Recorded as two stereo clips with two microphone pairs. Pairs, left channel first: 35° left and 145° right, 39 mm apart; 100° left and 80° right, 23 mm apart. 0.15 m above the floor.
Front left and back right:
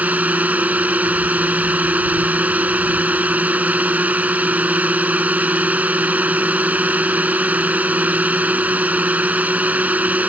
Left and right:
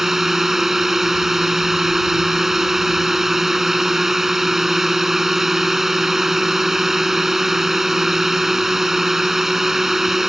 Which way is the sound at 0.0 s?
145° right.